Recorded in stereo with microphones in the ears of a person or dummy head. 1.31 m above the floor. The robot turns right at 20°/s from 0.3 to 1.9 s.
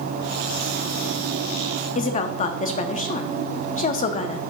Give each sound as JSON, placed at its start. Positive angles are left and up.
{"t": 1.9, "sound": "a woman speaking", "side_deg": 40, "distance_m": 0.6}